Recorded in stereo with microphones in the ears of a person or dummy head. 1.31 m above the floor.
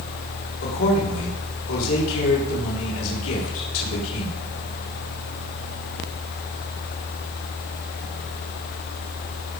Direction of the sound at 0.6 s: 80° left.